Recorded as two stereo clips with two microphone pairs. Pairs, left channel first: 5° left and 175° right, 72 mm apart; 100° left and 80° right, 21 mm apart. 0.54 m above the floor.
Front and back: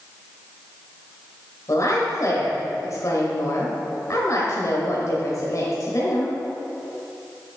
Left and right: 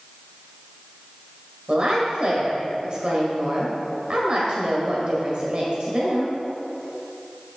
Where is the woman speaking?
35° right, 2 m.